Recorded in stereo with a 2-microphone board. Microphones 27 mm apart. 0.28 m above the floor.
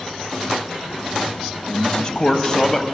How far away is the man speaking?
About 1.8 m.